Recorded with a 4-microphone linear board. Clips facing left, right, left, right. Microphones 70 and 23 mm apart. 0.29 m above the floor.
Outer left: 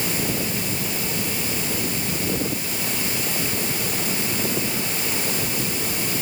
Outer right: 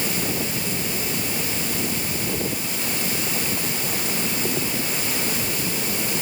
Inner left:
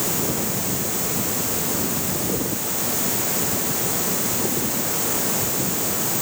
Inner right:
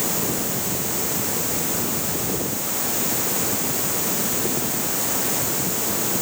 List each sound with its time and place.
Only background noise.